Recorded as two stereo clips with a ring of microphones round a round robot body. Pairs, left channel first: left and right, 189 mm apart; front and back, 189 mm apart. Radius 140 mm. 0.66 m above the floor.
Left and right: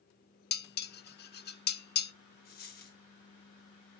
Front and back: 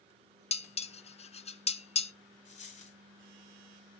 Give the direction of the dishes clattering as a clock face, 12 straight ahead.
10 o'clock.